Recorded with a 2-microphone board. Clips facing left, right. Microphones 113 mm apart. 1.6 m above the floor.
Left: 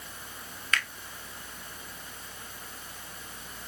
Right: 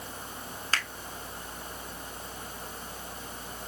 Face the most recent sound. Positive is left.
turn(degrees=-30)  # may be behind; listen again after turning